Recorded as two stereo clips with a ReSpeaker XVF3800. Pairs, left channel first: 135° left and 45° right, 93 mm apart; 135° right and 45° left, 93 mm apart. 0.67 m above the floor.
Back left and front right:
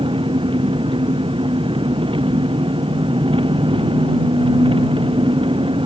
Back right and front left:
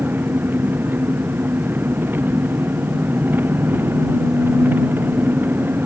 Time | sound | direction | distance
0.0 | an engine running | 25° right | ?